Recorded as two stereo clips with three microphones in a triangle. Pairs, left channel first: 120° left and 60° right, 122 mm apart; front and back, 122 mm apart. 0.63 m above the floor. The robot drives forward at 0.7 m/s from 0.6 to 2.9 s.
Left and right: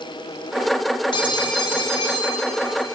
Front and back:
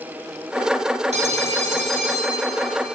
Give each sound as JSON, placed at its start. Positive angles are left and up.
{"t": 1.1, "sound": "a phone ringing", "azimuth_deg": 165, "distance_m": 1.2}